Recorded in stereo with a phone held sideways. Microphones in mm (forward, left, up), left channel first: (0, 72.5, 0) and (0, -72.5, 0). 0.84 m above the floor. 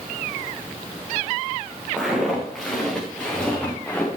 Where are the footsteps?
5° right (ahead or behind), 4 m; by 4.1 s 15° left (ahead or behind), 4 m.